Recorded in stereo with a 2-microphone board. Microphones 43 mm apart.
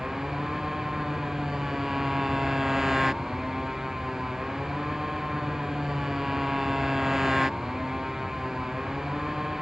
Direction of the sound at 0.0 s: 10° right (ahead or behind).